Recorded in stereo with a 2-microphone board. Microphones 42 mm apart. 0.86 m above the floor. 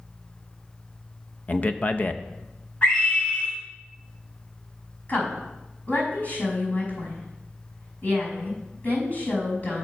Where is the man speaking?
35° left (ahead or behind), 0.6 m.